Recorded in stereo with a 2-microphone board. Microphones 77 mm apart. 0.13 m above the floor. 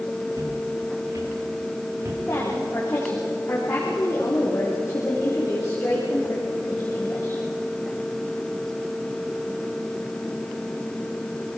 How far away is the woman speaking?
About 6.5 m.